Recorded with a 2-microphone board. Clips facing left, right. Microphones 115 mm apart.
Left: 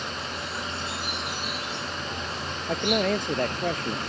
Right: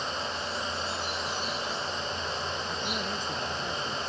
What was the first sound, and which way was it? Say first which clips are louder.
An insect: right 1 dB; 70° left (ahead or behind).